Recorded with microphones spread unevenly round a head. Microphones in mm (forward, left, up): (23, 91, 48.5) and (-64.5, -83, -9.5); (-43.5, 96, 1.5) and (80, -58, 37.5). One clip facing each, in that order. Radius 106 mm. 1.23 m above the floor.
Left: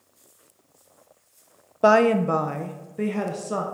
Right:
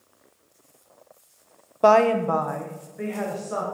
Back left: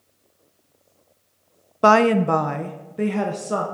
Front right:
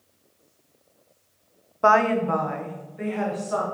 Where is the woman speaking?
155° left, 0.6 m; by 3.6 s 100° left, 1.6 m.